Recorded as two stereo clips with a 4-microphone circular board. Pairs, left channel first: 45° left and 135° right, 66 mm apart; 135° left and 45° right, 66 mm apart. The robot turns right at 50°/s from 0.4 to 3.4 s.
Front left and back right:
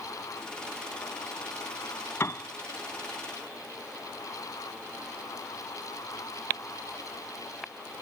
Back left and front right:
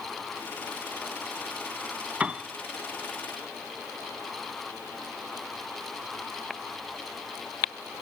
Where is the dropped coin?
I don't hear a dropped coin.